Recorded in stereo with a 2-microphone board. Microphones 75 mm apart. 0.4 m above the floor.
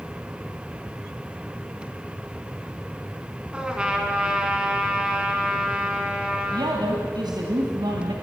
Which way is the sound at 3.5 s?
10° right (ahead or behind).